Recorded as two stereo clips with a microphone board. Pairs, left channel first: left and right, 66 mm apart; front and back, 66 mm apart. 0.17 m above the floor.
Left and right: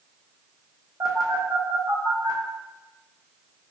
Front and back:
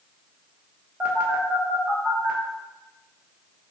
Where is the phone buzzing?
115° right, 1.1 m.